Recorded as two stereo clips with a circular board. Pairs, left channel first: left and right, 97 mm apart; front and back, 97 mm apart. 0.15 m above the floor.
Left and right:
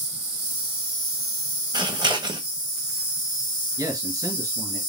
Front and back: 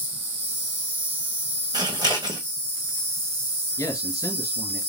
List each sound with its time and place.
0.0 s an insect: 140° right, 1.9 m
1.7 s scissors: 135° right, 1.5 m
3.8 s a man speaking: 45° right, 1.8 m